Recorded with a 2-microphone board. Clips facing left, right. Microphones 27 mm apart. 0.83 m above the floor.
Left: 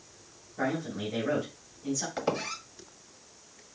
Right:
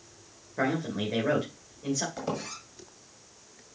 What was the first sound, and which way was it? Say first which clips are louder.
A man speaking: right 3 dB; 55° right (ahead or behind).